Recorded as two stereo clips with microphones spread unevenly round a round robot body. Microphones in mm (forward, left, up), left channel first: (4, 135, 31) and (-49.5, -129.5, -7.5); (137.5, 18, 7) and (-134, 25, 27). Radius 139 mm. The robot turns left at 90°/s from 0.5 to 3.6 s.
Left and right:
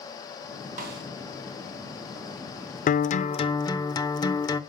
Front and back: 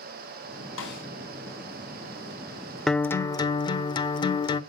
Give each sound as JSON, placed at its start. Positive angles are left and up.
{"t": 0.8, "sound": "a snare drum", "azimuth_deg": -40, "distance_m": 4.5}
{"t": 2.9, "sound": "a guitar", "azimuth_deg": 75, "distance_m": 0.9}